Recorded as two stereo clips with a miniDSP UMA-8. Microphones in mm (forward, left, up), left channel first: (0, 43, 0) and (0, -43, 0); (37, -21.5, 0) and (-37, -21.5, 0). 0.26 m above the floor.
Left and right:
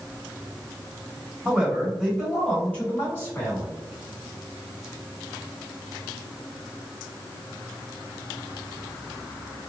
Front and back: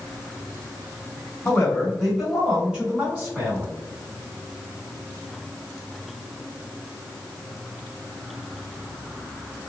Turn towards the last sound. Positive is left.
turn(degrees=135)